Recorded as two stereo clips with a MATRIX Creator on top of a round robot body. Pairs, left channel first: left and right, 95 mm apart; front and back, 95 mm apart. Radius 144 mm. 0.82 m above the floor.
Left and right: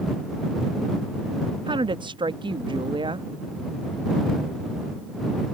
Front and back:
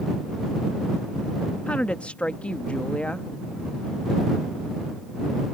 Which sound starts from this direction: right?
A woman speaking, at 1.7 s.